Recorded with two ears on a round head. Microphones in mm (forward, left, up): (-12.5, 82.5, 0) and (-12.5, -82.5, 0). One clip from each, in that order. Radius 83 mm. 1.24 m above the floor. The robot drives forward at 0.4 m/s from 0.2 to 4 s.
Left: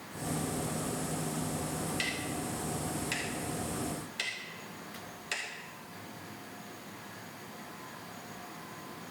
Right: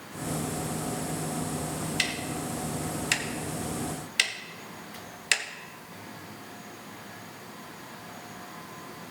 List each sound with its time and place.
2.0 s ticking: 30° right (ahead or behind), 1.6 m; by 5.4 s 50° right (ahead or behind), 1.1 m